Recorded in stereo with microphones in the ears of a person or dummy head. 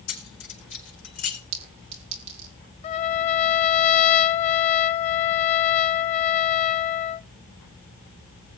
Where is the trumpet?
40° left (ahead or behind), 0.5 m.